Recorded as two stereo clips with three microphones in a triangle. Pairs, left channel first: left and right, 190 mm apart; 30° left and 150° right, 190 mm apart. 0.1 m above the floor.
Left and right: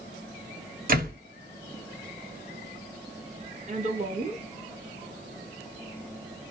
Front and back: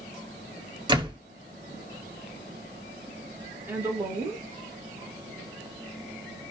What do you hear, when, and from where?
0.9 s a door slam: 95° right, 1.7 m
3.7 s a woman speaking: 75° right, 1.6 m